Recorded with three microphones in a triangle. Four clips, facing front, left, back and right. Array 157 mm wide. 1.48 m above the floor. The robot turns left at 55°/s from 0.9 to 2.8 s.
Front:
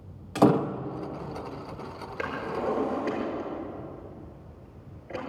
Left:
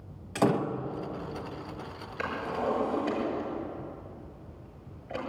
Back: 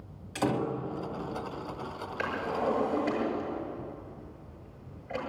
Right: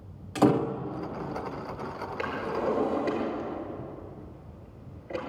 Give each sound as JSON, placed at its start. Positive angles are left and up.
{"t": 0.3, "sound": "a door slam", "azimuth_deg": 5, "distance_m": 1.0}
{"t": 2.2, "sound": "a drawer", "azimuth_deg": -20, "distance_m": 6.0}